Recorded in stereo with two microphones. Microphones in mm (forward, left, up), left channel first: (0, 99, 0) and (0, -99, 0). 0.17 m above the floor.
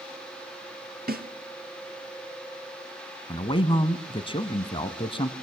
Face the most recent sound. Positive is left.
turn(degrees=25)  # may be behind; listen again after turning